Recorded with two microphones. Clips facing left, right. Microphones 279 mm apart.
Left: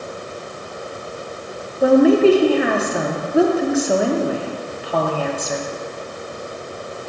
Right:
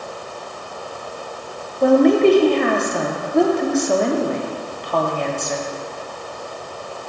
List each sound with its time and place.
1.8 s a woman speaking: 5° left (ahead or behind), 0.6 m